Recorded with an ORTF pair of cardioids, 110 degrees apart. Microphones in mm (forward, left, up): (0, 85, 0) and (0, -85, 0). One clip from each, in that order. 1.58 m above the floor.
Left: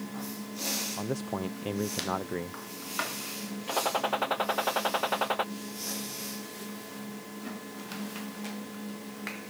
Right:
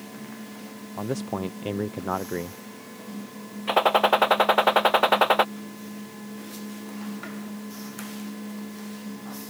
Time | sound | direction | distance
1.0 | a man speaking | 15° right | ?
3.7 | a gunshot | 45° right | ?